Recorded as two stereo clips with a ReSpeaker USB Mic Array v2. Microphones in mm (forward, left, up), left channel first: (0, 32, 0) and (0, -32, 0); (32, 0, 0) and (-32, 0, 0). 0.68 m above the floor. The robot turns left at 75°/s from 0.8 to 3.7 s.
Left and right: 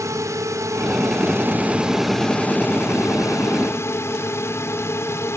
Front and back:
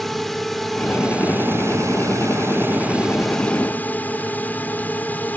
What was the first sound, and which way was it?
A drone, 85° right.